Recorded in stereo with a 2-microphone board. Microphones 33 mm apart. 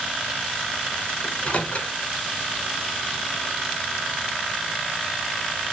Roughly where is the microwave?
Left.